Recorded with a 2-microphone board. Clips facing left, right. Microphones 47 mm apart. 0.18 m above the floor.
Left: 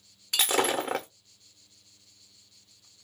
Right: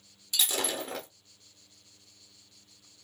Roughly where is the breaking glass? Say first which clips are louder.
Left 6 dB; left.